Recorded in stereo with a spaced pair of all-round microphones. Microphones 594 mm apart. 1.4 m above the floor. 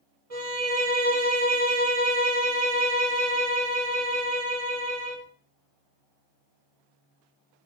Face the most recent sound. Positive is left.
turn(degrees=-70)  # may be behind; listen again after turning